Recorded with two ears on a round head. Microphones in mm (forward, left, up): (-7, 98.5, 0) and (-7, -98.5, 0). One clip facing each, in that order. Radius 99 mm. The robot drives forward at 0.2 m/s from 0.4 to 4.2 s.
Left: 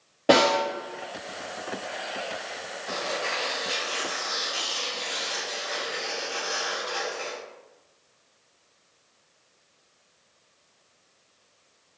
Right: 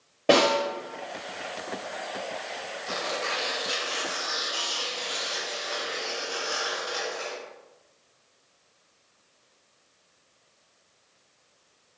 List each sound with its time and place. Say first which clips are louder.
0.3 s a snare drum: left 1 dB; 5° left (ahead or behind), 1.4 m
2.9 s tearing paper: left 1 dB; 20° right (ahead or behind), 0.7 m; by 7.4 s 15° right (ahead or behind), 0.9 m